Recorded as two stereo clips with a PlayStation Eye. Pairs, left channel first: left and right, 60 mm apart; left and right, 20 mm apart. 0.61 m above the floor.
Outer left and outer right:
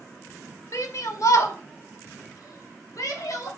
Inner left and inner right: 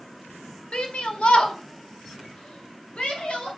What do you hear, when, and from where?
0.7 s a shout: 60° left (ahead or behind), 1.3 m; by 3.5 s 75° left (ahead or behind), 3 m